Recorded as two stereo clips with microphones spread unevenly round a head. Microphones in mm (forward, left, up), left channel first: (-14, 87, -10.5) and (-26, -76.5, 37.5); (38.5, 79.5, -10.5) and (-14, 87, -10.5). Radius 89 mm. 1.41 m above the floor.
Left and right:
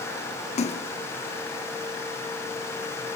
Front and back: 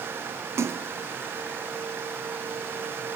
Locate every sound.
0.6 s a splash: 145° left, 0.6 m